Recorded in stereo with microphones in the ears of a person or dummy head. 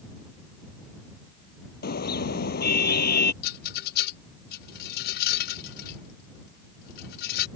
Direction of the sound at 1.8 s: 50° left (ahead or behind).